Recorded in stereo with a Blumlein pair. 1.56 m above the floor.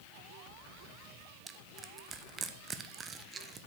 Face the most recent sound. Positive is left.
turn(degrees=-20)